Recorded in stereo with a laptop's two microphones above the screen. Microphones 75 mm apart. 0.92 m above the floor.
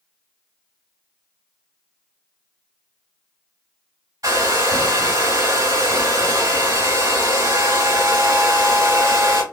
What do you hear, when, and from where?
4.2 s a hair dryer: 55° right (ahead or behind), 2.0 m